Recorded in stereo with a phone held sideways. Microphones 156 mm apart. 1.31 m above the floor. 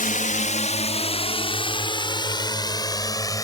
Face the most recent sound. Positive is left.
turn(degrees=20)  # may be behind; listen again after turning